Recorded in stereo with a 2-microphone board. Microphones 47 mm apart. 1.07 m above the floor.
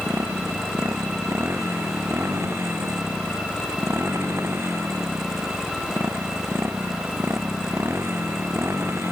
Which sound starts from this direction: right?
A motorcycle, at 0.0 s.